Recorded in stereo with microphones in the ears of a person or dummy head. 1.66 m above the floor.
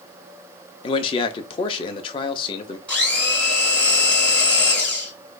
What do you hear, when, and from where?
0.8 s a man speaking: 30° left (ahead or behind), 0.6 m
2.9 s a blender: 5° left (ahead or behind), 1.8 m